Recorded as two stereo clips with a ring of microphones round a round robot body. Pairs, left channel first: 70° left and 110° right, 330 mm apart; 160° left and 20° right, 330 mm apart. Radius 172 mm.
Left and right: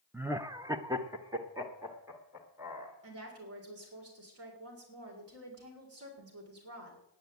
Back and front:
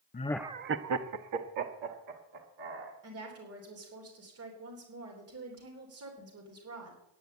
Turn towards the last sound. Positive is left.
turn(degrees=-70)